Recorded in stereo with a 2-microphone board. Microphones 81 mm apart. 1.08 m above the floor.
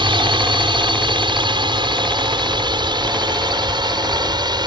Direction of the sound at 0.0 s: 75° right (ahead or behind).